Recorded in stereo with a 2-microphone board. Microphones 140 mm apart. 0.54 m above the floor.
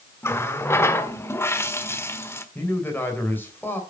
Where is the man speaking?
15° left (ahead or behind), 3 m.